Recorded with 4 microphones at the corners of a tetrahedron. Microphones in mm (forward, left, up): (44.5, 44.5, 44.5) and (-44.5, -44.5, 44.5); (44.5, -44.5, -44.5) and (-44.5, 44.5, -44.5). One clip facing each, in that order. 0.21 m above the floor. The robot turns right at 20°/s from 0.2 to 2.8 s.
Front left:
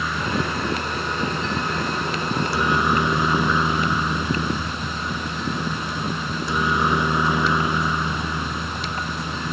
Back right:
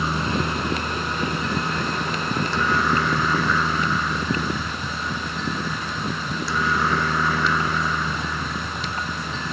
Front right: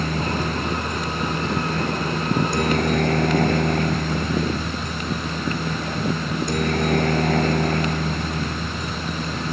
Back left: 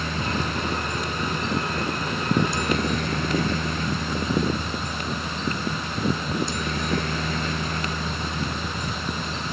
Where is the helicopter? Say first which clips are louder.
Back right 1 dB, front right 3 dB; 80° right; by 9.5 s 25° right.